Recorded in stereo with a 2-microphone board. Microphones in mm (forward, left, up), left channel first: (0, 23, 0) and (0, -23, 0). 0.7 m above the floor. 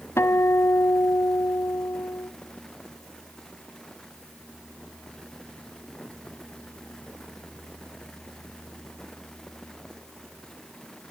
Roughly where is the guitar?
Left.